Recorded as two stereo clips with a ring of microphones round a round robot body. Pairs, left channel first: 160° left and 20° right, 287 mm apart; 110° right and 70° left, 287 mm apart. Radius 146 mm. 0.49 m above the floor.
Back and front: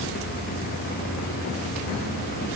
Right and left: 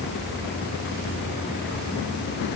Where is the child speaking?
No child speaking in this recording.